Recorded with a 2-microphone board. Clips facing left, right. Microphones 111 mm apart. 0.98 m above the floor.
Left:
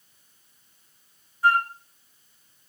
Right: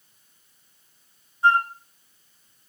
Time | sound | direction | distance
1.4 | a flute | 25° right (ahead or behind) | 1.0 m